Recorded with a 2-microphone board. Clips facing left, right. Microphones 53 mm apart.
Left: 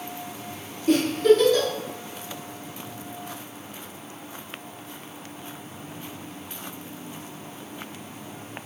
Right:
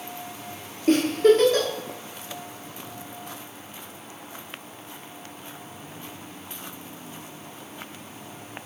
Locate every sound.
0.9 s a giggle: 45° right (ahead or behind), 0.7 m